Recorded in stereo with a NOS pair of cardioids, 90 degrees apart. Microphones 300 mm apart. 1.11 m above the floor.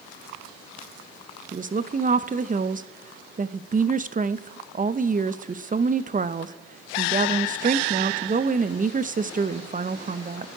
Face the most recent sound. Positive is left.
turn(degrees=-25)